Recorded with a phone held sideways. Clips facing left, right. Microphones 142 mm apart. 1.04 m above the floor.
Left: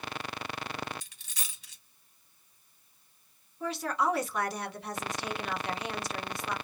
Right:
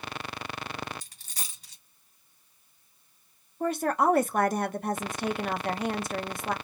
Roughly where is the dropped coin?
Right.